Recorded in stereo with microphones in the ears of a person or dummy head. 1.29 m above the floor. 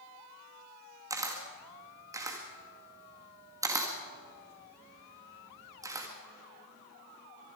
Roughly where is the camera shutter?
Centre.